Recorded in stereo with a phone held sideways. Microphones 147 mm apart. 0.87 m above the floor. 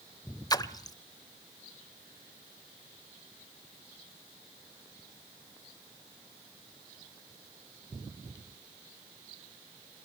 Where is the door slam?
No door slam in this recording.